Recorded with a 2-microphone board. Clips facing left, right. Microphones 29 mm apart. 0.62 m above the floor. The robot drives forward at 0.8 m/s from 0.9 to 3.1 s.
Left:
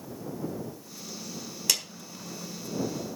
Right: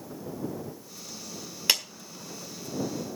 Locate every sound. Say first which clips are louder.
1.7 s a clap: right 3 dB; 30° right (ahead or behind), 1.7 m